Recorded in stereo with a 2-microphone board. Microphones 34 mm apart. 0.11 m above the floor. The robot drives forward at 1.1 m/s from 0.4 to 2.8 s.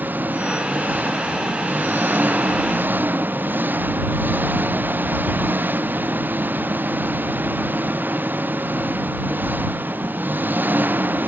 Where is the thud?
No thud in this recording.